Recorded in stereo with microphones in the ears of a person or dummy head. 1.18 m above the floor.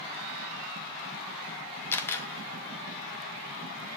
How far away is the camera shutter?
About 1.0 m.